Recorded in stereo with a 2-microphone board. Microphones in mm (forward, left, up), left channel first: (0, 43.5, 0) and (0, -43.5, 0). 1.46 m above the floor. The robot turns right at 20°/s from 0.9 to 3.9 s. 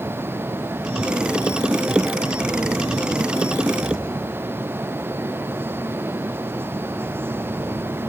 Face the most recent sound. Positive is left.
No sound to turn to.